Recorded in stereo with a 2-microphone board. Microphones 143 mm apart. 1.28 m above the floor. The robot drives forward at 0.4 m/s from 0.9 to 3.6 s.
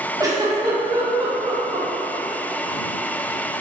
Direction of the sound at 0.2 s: 25° right (ahead or behind).